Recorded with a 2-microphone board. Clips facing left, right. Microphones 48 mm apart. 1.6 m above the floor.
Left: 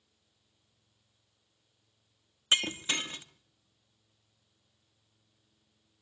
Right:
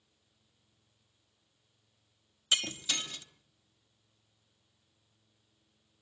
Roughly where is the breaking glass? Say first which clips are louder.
Left 3 dB; left.